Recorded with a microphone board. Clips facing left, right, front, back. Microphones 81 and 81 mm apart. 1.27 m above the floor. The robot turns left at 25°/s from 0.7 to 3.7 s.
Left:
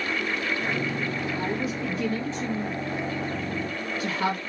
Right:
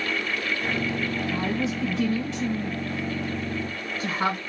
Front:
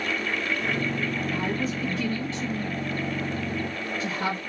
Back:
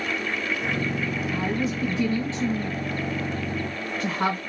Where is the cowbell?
I don't hear a cowbell.